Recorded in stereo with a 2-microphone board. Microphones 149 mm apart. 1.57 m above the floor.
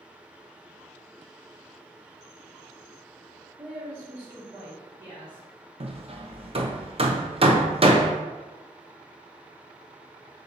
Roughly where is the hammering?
Right.